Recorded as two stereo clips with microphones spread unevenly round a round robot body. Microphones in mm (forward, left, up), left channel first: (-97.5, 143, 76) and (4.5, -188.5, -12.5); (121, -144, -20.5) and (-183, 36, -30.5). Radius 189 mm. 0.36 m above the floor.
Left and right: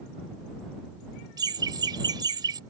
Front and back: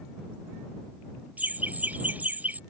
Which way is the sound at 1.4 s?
130° right.